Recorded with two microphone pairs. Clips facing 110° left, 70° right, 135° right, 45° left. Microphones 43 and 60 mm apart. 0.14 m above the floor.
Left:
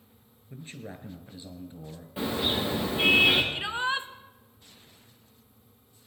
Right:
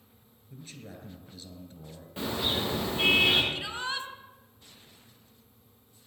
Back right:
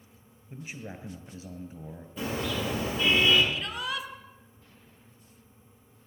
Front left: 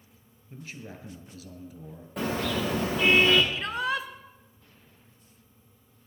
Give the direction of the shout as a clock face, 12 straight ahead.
10 o'clock.